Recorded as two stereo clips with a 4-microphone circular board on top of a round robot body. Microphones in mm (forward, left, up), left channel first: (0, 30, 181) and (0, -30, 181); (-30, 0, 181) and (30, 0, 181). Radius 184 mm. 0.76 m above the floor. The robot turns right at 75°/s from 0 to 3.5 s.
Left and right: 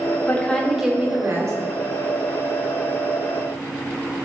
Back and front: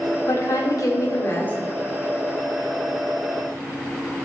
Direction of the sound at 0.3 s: 150° left.